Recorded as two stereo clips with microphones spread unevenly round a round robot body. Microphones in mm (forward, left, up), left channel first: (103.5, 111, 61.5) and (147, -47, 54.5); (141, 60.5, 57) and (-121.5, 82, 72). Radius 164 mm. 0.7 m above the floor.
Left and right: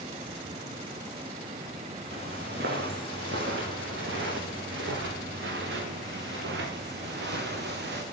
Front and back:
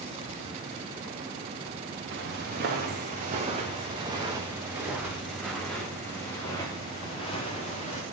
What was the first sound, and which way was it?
Footsteps, 130° right.